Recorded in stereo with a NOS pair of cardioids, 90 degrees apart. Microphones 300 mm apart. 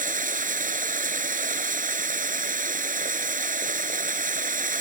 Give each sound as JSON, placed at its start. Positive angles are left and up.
{"t": 0.0, "sound": "running water", "azimuth_deg": -30}